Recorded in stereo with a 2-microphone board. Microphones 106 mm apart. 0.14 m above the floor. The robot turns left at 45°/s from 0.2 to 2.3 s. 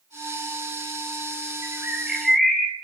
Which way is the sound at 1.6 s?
150° right.